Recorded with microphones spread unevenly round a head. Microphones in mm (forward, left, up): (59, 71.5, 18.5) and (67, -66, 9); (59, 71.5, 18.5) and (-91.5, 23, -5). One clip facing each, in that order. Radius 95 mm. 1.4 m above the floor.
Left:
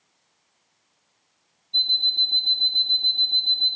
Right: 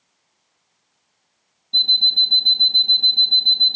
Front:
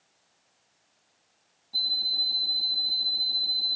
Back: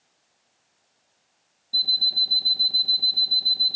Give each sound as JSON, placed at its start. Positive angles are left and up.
{"t": 1.7, "sound": "an alarm clock", "azimuth_deg": -105, "distance_m": 0.7}